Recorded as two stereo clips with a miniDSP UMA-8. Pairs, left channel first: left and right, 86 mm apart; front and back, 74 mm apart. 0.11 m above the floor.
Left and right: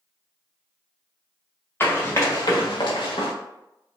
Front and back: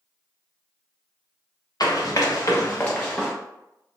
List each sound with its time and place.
1.8 s running footsteps: 25° left, 1.0 m; by 3.3 s 85° left, 0.7 m